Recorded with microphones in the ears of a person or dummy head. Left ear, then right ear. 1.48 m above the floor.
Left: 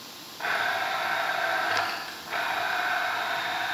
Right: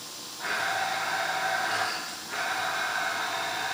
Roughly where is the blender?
Left.